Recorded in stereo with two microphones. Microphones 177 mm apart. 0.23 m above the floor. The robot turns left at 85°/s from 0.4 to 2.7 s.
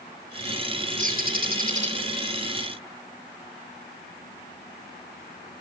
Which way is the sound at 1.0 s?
60° right.